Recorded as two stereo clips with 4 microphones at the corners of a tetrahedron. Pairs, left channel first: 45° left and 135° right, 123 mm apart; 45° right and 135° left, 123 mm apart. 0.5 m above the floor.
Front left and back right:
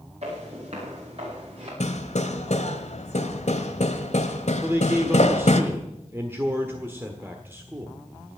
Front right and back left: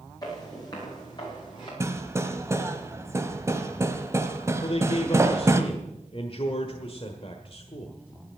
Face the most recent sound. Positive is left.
turn(degrees=-65)